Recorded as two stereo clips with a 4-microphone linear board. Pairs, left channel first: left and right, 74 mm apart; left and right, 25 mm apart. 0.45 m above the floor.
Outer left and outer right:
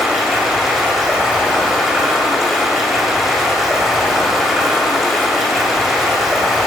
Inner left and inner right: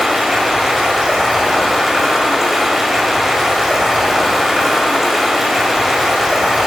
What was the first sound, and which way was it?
Running water, 5° right (ahead or behind).